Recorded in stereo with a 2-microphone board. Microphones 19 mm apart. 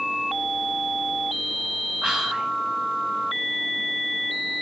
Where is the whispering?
70° right (ahead or behind), 1.1 m.